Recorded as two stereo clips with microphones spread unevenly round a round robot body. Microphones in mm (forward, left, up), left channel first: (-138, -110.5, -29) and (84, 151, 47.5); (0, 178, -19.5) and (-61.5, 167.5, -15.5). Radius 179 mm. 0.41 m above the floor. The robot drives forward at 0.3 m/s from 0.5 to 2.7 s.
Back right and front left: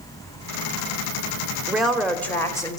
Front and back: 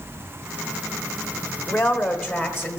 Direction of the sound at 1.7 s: 60° right.